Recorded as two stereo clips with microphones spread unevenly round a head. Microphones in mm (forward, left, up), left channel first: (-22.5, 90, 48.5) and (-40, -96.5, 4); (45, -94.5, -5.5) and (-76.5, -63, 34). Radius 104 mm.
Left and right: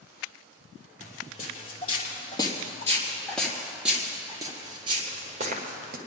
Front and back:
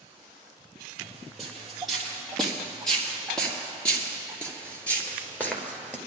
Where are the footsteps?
95° left, 2.5 m; by 6.0 s 115° right, 1.9 m.